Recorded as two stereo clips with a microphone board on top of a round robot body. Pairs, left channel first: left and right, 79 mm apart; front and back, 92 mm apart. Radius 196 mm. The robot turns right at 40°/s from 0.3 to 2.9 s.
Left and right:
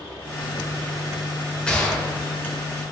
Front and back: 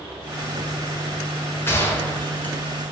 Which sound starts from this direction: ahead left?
A gunshot, at 1.7 s.